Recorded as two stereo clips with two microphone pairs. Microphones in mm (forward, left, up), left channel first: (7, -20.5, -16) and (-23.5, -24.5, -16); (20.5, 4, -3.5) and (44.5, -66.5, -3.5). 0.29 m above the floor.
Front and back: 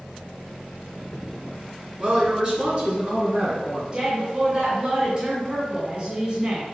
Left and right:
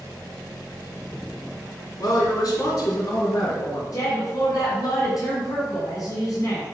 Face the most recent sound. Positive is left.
turn(degrees=135)